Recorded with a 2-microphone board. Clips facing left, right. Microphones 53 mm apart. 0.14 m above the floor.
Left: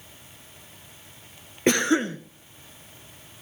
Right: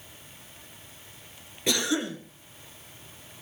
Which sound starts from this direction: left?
A cough, at 1.7 s.